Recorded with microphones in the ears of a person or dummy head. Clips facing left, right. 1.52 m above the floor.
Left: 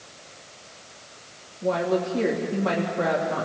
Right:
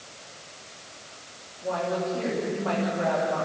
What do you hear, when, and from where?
1.6 s a woman speaking: 50° left (ahead or behind), 3 m